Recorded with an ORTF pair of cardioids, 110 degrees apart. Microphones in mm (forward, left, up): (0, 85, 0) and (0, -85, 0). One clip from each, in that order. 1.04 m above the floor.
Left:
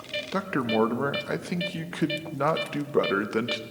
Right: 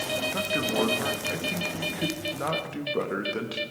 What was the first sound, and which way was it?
A man speaking, 35° left.